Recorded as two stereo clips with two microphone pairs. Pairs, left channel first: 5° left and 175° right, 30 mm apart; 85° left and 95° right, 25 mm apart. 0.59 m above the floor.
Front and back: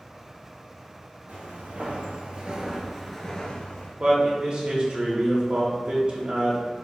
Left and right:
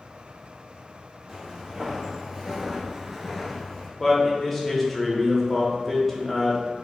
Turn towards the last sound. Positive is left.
turn(degrees=165)